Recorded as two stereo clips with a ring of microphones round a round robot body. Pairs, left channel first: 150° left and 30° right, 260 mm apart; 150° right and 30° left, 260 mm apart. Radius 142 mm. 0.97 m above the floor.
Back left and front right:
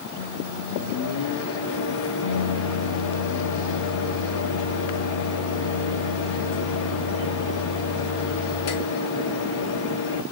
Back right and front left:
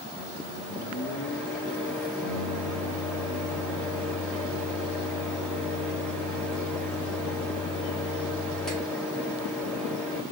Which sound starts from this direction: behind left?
A microwave, at 0.2 s.